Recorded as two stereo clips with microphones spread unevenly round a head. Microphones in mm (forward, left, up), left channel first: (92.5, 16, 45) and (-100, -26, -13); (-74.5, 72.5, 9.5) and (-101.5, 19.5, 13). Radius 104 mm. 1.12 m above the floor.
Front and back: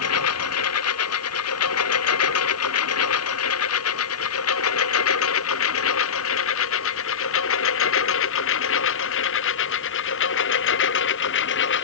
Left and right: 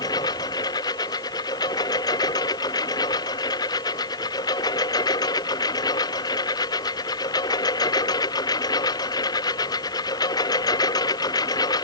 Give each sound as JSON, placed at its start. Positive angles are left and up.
{"t": 0.0, "sound": "a lawn mower", "azimuth_deg": 25}